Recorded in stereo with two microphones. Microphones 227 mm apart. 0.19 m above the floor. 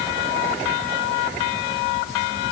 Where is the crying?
No crying in this recording.